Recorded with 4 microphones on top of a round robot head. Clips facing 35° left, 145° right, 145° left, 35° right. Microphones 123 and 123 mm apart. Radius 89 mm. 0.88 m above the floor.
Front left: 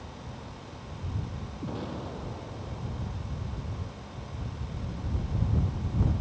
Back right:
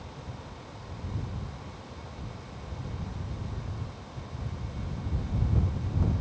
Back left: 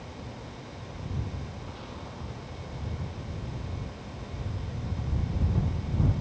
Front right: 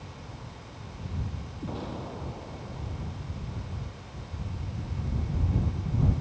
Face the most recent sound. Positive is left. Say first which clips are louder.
# front left 9 dB, front right 6 dB
turn(degrees=10)